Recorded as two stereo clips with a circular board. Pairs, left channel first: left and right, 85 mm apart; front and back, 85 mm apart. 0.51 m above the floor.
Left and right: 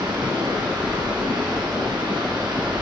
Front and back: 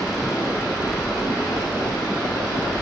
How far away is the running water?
About 3 m.